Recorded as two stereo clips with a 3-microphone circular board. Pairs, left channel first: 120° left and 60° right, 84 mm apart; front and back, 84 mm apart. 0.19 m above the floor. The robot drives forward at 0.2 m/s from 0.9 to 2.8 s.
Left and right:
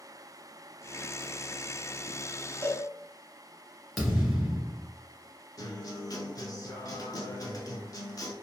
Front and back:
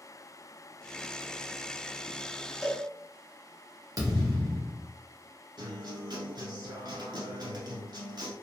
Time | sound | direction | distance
2.6 | a cowbell | 85° right | 0.7 m
4.0 | a thud | 150° right | 1.3 m
5.6 | a guitar | 160° left | 0.7 m